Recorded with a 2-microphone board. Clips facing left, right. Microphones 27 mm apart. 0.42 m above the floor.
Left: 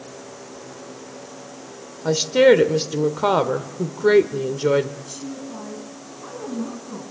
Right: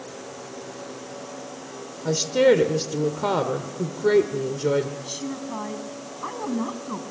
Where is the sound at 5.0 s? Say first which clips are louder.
Right 2 dB; 50° right (ahead or behind), 3.5 m.